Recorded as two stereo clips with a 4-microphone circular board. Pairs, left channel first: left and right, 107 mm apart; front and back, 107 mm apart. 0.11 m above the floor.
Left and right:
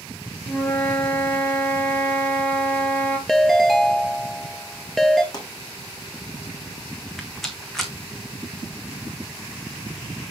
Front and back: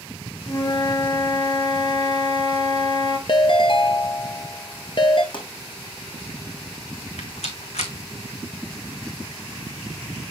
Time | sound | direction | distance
0.5 | a flute | 20° left | 1.2 m
3.3 | a ringtone | straight ahead | 0.8 m
5.3 | a pop | 40° left | 3 m
7.2 | a rattle | straight ahead | 1.3 m